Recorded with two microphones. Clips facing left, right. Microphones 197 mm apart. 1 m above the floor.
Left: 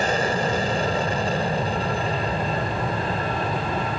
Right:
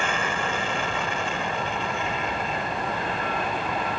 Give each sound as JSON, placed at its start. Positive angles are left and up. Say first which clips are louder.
{"t": 0.0, "sound": "an aircraft", "louder": "left 6 dB", "side_deg": 40}